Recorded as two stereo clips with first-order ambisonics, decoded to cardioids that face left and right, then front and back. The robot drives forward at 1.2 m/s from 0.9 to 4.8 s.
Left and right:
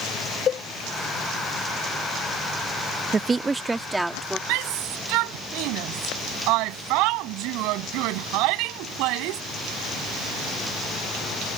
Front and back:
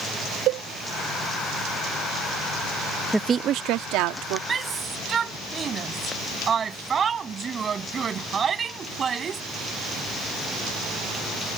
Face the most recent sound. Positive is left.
turn(degrees=-115)